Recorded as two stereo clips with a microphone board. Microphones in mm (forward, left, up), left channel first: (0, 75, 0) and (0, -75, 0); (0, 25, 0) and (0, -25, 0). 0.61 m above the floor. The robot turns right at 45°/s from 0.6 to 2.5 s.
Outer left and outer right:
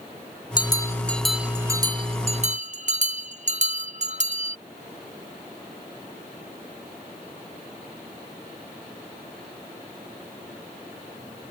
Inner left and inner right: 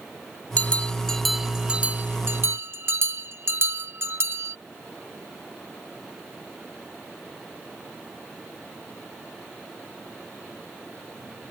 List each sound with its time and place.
0.6 s a bell: 30° left (ahead or behind); by 4.6 s 50° right (ahead or behind)